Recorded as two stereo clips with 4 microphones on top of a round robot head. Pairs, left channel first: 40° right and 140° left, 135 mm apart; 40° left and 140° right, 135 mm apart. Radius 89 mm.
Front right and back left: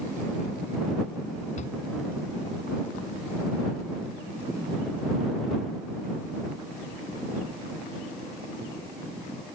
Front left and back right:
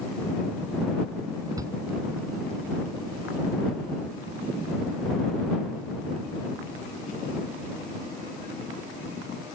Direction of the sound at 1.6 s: 75° right.